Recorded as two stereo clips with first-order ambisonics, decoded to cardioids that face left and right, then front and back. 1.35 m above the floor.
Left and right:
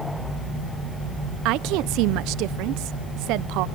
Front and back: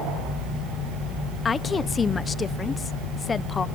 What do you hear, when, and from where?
1.4 s a woman speaking: 70° right, 0.5 m